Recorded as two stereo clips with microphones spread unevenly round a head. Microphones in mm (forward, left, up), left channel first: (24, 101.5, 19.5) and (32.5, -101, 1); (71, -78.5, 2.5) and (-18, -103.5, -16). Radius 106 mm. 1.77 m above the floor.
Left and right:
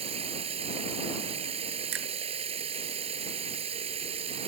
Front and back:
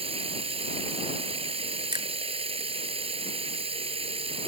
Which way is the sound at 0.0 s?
155° right.